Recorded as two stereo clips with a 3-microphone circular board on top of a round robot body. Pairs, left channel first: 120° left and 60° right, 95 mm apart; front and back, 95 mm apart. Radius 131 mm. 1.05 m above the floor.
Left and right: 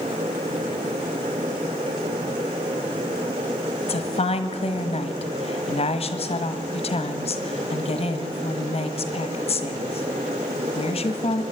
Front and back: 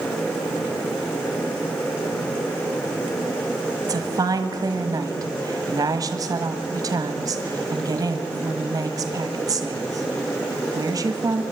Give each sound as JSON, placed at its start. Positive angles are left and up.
{"t": 3.8, "sound": "a woman speaking", "azimuth_deg": 125, "distance_m": 1.5}